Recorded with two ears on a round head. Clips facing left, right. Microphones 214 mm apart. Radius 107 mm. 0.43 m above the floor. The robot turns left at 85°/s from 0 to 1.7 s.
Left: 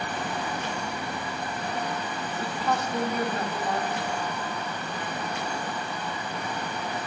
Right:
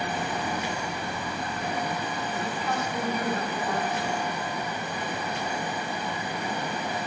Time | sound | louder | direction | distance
2.3 | a woman speaking | left 4 dB | 30° left (ahead or behind) | 3 m